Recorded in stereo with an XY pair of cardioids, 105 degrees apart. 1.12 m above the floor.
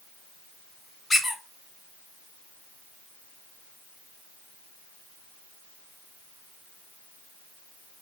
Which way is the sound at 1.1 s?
30° left.